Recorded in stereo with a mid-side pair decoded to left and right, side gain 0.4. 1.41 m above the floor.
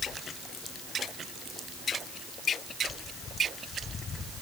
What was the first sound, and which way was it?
Only background noise.